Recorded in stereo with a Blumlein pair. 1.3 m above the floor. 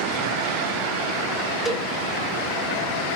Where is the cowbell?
5° left, 2.5 m.